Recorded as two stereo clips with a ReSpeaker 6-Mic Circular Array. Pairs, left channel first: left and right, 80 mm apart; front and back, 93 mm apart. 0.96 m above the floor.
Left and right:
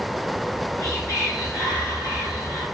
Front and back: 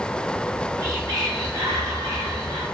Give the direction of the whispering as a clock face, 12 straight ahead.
8 o'clock.